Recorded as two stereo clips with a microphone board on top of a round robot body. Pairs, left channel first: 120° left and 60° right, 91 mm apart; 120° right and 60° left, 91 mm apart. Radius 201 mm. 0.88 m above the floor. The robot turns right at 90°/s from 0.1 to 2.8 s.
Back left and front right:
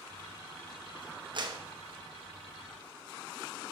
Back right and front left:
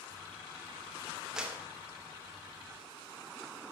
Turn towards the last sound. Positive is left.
turn(degrees=105)